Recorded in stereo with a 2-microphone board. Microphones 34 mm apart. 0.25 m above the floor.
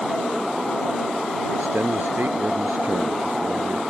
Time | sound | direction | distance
1.5 | a man speaking | 75° right (ahead or behind) | ?